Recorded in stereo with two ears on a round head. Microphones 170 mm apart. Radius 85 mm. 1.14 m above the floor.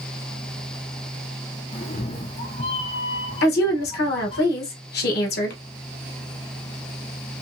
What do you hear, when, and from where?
1.7 s a cat meowing: 30° left (ahead or behind), 0.6 m
3.4 s a woman speaking: 55° left (ahead or behind), 0.9 m